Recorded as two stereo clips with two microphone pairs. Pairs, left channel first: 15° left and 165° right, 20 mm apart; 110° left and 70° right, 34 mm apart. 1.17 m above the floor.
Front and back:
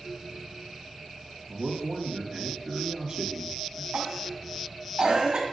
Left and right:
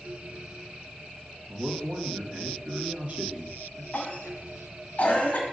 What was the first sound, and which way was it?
A man speaking, 105° right.